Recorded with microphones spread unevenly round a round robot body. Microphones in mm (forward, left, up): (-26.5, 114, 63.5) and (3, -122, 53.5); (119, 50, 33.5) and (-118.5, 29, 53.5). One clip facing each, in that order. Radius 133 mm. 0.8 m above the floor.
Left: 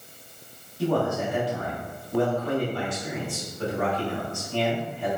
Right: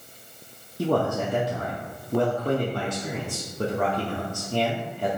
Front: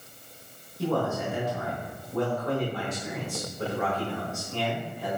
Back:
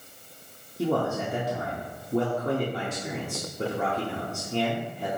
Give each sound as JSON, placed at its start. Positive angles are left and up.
{"t": 0.8, "sound": "a man speaking", "azimuth_deg": -115, "distance_m": 0.9}